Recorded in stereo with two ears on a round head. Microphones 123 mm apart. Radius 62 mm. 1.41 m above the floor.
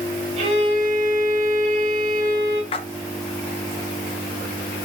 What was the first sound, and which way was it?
A violin, 50° right (ahead or behind).